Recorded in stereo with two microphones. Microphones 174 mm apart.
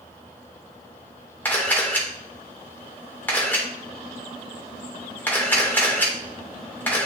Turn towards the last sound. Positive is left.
turn(degrees=10)  # may be behind; listen again after turning